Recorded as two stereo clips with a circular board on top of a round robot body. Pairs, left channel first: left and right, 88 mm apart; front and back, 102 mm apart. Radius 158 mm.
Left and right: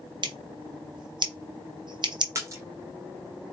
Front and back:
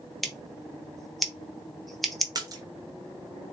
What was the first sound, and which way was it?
Scissors, 90° right.